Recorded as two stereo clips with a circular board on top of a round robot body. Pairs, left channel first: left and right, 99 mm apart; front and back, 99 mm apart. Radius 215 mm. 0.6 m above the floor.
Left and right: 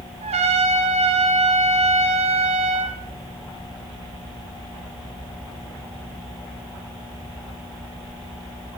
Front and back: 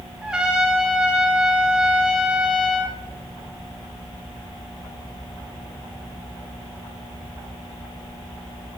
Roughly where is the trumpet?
Right.